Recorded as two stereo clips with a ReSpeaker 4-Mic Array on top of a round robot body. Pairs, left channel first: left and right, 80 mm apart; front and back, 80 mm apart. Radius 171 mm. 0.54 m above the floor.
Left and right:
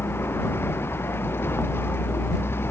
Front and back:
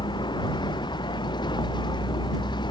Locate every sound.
0.0 s a vehicle: 30° left